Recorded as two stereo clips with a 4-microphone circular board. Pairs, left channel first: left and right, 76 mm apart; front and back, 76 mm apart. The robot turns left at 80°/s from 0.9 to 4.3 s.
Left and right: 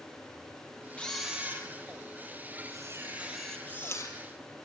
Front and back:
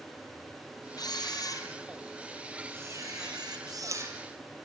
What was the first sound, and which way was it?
A camera shutter, 20° left.